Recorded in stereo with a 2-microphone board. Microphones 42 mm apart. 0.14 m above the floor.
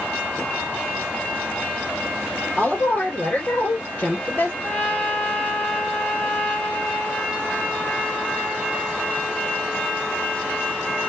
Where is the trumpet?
45° left (ahead or behind), 2.5 m.